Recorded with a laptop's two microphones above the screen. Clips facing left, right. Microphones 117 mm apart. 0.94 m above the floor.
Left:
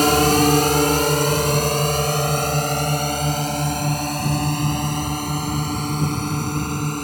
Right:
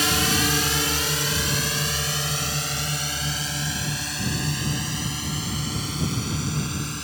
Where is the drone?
50° left (ahead or behind).